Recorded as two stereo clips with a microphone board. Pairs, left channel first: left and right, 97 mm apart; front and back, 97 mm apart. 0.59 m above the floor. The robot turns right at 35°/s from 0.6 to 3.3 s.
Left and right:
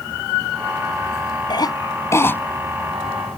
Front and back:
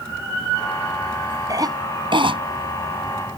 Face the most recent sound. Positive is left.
turn(degrees=-170)